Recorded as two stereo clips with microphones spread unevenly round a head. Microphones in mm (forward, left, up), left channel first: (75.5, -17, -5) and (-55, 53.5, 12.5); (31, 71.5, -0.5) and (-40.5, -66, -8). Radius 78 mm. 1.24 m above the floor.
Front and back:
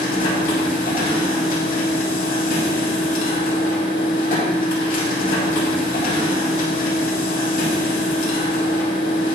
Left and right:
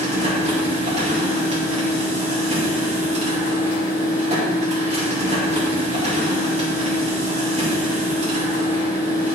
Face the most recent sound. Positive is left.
turn(degrees=-65)